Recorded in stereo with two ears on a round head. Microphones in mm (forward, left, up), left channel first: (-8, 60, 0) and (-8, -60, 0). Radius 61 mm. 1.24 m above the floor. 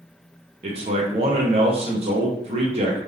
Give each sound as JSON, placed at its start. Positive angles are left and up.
{"t": 0.6, "sound": "a man speaking", "side_deg": -45, "distance_m": 0.9}